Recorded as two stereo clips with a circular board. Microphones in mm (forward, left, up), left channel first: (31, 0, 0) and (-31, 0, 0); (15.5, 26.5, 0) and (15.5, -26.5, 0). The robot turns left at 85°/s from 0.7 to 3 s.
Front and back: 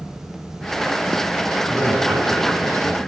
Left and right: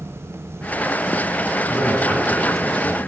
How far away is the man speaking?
About 8 m.